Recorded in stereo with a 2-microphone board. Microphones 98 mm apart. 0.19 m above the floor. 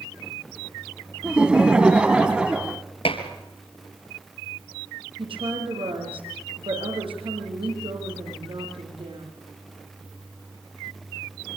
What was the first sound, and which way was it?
Laughter, 10° right (ahead or behind).